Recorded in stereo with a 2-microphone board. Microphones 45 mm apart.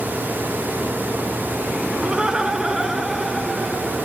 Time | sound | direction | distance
2.0 | laughter | 20° right (ahead or behind) | 1.7 m